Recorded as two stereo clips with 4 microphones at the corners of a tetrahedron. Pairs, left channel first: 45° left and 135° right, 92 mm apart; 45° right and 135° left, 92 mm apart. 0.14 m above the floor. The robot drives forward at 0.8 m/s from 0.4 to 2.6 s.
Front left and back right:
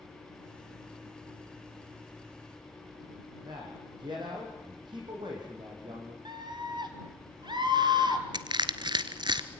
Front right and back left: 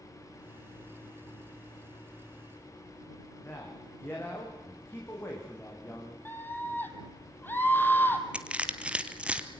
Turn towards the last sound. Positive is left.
turn(degrees=-150)